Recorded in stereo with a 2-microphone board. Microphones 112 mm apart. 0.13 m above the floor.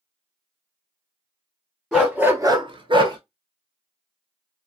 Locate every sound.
1.9 s a dog barking: 5° right (ahead or behind), 1.3 m; by 3.2 s 40° right (ahead or behind), 1.0 m